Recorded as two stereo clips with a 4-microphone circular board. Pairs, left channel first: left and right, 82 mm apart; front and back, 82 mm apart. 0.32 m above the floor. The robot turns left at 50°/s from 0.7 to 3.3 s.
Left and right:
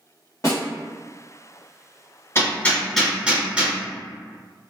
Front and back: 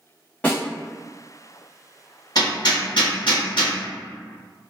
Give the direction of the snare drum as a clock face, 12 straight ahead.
10 o'clock.